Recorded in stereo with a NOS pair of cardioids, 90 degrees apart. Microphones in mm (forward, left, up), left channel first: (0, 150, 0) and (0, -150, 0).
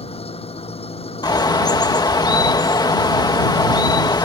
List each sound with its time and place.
0.0 s an engine running: 20° left
1.2 s a bird: 15° left